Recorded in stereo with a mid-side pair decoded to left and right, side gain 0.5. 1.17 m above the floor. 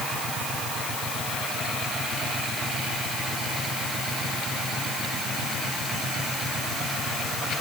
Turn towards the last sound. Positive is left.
No sound to turn to.